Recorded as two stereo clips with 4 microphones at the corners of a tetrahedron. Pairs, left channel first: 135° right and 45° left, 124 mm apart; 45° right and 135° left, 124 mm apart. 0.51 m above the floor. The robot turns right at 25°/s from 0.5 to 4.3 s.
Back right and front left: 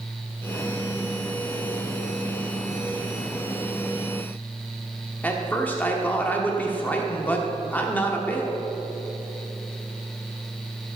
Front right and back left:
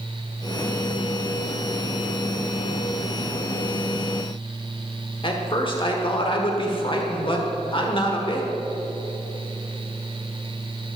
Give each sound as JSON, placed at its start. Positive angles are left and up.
{"t": 5.2, "sound": "a man speaking", "azimuth_deg": -65, "distance_m": 1.2}